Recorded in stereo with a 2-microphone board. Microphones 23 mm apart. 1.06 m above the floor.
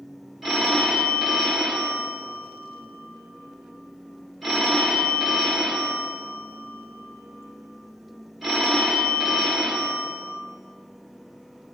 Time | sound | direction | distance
0.4 | a phone ringing | 5° right (ahead or behind) | 1.6 m